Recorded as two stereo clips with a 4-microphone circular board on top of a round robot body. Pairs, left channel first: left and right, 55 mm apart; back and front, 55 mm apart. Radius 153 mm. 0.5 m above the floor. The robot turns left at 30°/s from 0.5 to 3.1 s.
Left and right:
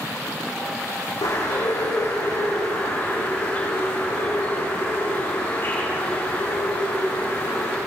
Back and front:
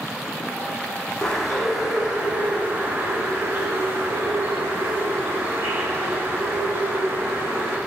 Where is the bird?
100° left, 9.5 m; by 7.8 s 45° left, 9.5 m.